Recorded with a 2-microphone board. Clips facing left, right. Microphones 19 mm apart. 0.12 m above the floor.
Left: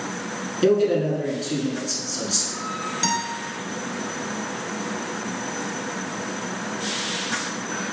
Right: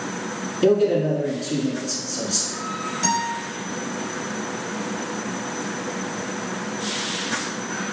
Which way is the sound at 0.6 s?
15° left (ahead or behind).